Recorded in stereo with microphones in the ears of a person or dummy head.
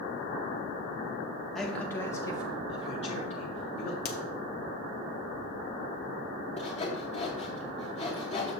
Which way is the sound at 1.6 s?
Centre (ahead or behind).